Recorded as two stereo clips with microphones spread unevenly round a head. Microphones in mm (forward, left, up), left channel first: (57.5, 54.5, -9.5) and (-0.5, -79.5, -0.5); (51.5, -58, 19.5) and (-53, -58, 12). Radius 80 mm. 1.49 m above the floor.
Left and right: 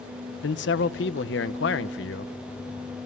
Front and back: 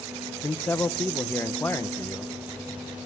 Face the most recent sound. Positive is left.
turn(degrees=80)